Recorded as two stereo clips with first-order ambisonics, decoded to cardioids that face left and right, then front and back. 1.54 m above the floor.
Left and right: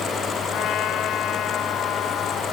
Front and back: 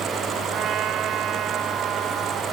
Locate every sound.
0.5 s a trumpet: 135° left